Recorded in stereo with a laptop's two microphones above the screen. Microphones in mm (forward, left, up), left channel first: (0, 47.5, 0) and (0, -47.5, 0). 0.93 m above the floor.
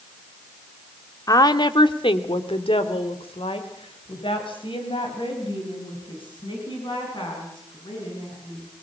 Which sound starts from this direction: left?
A woman speaking, at 1.3 s.